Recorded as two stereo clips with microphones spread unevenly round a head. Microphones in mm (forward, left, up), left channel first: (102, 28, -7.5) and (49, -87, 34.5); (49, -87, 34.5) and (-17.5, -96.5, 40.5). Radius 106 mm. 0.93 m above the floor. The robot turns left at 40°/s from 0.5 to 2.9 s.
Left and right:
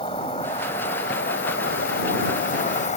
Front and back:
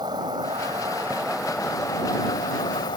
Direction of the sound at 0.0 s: 135° left.